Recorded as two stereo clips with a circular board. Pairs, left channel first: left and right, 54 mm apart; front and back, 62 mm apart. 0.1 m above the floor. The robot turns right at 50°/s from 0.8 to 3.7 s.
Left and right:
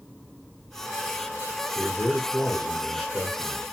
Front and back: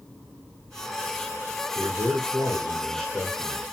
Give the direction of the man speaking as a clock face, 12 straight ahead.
7 o'clock.